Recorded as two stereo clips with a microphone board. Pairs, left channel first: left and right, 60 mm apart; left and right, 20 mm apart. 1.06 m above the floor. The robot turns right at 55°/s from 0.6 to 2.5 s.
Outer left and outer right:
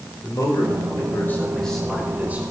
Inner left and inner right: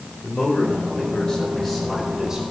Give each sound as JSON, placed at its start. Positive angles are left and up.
{"t": 0.2, "sound": "a man speaking", "azimuth_deg": 110, "distance_m": 4.5}